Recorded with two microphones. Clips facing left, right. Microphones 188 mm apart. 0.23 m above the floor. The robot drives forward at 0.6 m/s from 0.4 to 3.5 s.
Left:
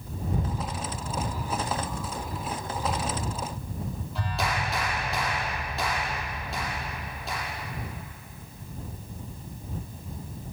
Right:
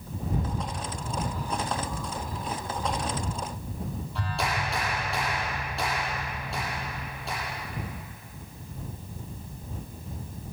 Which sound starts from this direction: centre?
A clap, at 4.2 s.